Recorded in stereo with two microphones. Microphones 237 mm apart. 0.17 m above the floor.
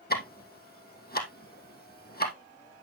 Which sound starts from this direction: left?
Ticking, at 0.1 s.